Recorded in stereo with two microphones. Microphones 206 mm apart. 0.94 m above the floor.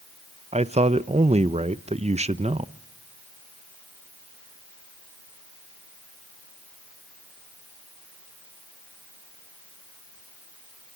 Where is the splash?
No splash in this recording.